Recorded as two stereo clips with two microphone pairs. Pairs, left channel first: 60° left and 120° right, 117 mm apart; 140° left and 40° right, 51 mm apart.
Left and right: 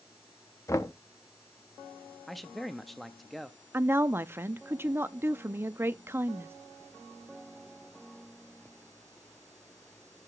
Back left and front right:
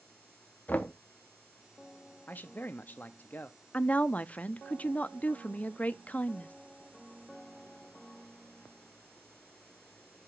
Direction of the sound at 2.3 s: 140° left.